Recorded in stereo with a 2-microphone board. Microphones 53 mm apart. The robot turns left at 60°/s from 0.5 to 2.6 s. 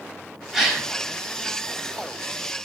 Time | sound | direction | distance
0.5 | a gasp | 5° right (ahead or behind) | 0.8 m